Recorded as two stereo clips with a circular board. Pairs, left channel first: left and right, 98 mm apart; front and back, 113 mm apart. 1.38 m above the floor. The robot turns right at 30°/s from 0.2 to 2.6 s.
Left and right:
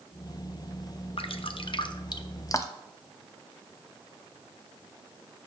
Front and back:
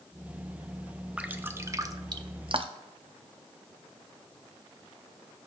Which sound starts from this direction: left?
Dripping, at 1.2 s.